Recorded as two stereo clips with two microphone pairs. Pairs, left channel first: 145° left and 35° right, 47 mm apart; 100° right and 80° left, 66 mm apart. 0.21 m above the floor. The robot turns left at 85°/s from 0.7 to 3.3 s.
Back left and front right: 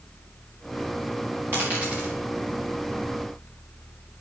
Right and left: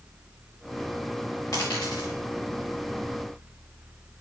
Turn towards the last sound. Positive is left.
turn(degrees=135)